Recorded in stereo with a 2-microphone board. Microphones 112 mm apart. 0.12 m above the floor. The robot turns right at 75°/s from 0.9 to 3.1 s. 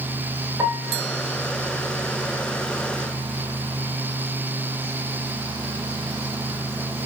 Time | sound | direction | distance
0.6 | a piano | 30° right (ahead or behind) | 1.1 m